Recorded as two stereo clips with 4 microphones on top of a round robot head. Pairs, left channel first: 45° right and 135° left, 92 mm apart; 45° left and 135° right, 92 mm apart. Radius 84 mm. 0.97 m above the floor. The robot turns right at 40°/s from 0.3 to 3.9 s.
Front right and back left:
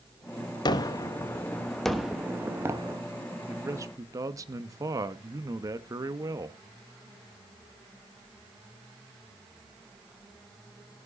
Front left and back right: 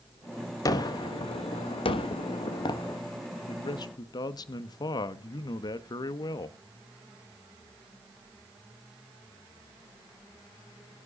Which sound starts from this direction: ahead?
A gunshot, at 0.7 s.